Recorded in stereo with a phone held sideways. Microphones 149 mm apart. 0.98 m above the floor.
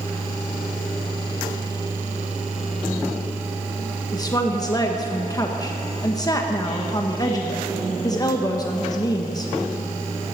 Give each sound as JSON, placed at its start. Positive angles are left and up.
{"t": 4.1, "sound": "a woman speaking", "side_deg": 25, "distance_m": 1.0}